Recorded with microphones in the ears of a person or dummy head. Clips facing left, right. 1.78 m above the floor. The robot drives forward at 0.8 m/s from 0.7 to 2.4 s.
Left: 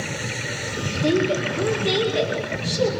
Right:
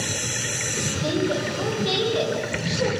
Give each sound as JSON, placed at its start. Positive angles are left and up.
{"t": 1.0, "sound": "a woman speaking", "side_deg": 40, "distance_m": 5.0}